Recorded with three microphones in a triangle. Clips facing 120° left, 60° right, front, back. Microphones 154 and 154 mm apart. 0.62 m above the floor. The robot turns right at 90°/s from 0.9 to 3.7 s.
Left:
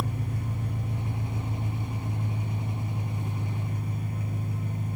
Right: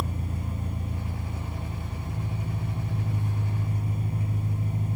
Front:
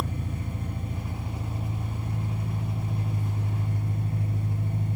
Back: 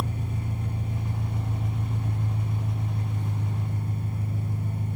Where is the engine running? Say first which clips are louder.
Left 1 dB, back 1 dB; 110° left, 2 m; by 5.0 s straight ahead, 2 m.